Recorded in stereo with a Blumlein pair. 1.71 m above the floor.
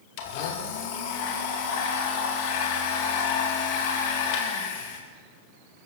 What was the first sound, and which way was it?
A blender, 45° left.